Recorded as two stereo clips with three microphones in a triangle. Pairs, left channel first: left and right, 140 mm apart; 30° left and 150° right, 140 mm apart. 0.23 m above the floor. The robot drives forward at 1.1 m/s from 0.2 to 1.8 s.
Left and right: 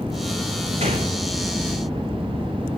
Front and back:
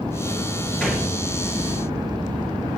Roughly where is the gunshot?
Ahead right.